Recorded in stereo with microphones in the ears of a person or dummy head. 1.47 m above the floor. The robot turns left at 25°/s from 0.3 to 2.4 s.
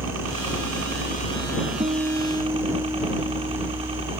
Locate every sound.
0.0 s a helicopter: 95° right; by 4.2 s 150° right
1.8 s a guitar: 25° right (ahead or behind); by 4.1 s 10° right (ahead or behind)